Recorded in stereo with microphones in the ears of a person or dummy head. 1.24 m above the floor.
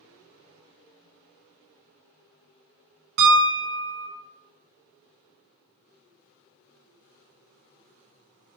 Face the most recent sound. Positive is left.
turn(degrees=-60)  # may be behind; listen again after turning